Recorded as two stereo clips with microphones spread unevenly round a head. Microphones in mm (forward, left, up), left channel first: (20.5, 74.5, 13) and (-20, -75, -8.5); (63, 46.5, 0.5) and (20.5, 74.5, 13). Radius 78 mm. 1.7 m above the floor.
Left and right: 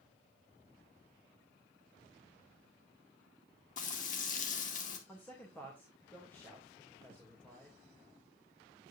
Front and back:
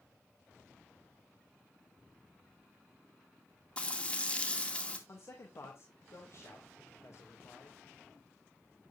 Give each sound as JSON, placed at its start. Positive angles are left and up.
{"t": 3.8, "sound": "frying", "azimuth_deg": 35, "distance_m": 2.5}
{"t": 5.1, "sound": "a man speaking", "azimuth_deg": -5, "distance_m": 2.5}